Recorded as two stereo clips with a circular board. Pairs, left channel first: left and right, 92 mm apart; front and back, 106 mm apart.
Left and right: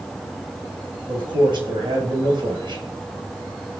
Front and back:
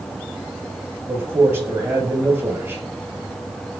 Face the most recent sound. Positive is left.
turn(degrees=-115)